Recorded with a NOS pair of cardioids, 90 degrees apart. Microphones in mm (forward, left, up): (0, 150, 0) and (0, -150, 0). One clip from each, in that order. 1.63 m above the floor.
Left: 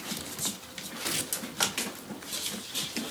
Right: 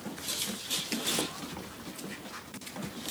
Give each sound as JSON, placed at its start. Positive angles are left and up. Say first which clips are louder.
{"t": 1.0, "sound": "tearing paper", "louder": "left 3 dB", "azimuth_deg": 25, "distance_m": 1.2}